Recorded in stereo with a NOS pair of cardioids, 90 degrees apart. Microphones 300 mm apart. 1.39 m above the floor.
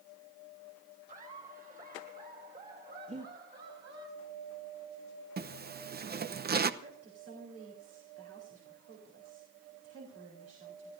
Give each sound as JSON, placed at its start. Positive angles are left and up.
{"t": 1.1, "sound": "laughter", "azimuth_deg": -25, "distance_m": 5.5}
{"t": 3.1, "sound": "breathing", "azimuth_deg": -25, "distance_m": 2.0}
{"t": 5.4, "sound": "a zipper", "azimuth_deg": -35, "distance_m": 0.8}
{"t": 6.8, "sound": "a woman speaking", "azimuth_deg": -55, "distance_m": 4.0}